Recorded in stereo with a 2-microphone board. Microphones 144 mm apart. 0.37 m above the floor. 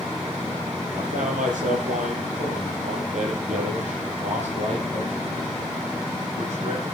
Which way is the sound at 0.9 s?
70° right (ahead or behind).